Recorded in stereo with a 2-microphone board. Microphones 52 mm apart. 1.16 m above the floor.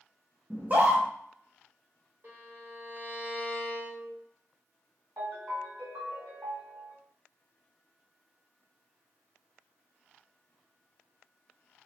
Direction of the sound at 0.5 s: 35° right (ahead or behind).